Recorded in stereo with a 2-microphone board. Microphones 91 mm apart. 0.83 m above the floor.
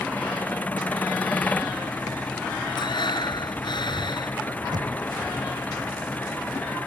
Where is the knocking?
55° right (ahead or behind).